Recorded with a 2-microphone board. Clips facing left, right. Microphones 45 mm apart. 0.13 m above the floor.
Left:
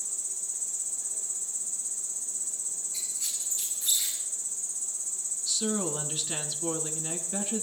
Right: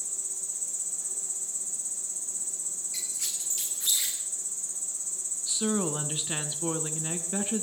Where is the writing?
No writing in this recording.